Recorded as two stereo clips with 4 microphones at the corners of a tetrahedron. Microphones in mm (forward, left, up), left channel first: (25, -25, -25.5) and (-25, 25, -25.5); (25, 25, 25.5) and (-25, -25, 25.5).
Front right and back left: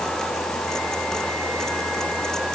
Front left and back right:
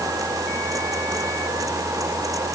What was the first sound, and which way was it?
Only background noise.